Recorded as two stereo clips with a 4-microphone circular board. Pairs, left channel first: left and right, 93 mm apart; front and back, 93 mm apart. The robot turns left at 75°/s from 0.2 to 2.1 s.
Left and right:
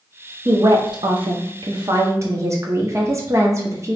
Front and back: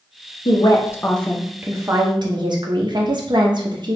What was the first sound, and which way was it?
A woman speaking, 25° right.